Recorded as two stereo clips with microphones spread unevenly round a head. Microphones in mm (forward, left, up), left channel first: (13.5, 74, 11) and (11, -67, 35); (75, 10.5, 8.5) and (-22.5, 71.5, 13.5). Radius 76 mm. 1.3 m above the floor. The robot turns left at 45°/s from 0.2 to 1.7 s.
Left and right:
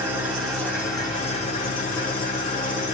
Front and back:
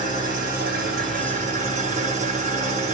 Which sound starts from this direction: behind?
An engine running, at 0.0 s.